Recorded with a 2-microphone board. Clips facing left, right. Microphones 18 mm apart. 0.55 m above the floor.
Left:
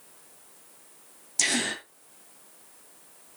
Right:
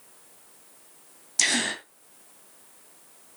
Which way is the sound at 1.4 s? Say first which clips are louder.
Right 2 dB; 20° right (ahead or behind).